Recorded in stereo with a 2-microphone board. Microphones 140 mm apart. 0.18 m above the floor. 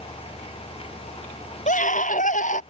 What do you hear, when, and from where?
1.7 s a scream: 70° left (ahead or behind)